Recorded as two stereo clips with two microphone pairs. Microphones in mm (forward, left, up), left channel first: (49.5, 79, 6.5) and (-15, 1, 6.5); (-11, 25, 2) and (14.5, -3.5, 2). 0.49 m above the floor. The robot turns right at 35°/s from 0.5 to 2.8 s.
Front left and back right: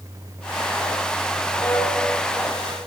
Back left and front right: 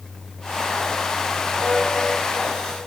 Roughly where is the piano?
Ahead.